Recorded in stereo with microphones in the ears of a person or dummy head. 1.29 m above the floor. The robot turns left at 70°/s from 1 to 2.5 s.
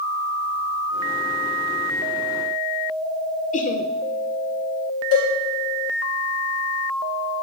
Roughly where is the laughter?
Left.